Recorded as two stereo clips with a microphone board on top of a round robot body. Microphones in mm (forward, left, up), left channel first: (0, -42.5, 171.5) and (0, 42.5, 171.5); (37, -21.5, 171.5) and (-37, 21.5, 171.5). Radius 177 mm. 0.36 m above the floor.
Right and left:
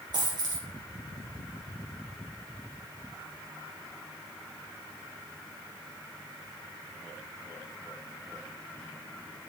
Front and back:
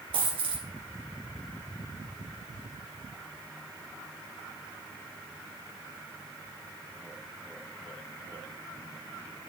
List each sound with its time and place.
0.1 s a dropped coin: 125° left, 2 m